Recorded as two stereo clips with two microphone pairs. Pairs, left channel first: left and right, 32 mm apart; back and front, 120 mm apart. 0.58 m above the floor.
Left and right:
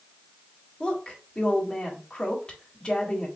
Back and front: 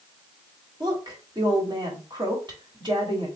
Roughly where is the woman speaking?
Ahead left.